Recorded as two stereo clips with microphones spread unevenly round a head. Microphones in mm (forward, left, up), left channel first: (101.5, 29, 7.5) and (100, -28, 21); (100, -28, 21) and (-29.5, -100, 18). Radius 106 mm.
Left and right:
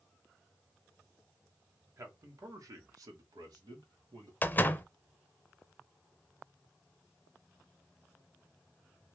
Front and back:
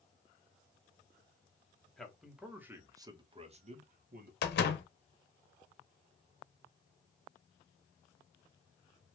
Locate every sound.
2.0 s a man speaking: 60° right, 1.3 m; by 4.3 s 130° right, 1.0 m
4.4 s a door slam: 30° left, 0.6 m